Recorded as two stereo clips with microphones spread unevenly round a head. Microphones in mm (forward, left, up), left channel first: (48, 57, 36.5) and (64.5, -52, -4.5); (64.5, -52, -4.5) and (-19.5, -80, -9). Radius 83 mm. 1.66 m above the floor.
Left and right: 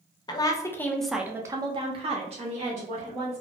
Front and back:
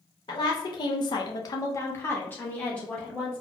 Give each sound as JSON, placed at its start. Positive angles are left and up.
{"t": 0.3, "sound": "a woman speaking", "azimuth_deg": 65, "distance_m": 0.8}